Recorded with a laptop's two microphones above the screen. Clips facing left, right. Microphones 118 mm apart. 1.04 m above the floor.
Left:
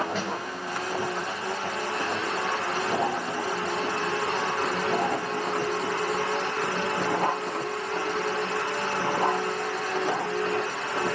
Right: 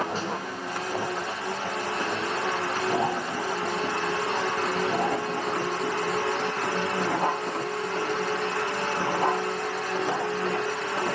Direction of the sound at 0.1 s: 35° right (ahead or behind).